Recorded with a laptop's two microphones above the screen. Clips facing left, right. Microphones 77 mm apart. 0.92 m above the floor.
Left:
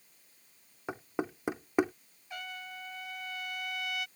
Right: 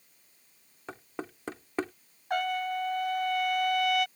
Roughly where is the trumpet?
Right.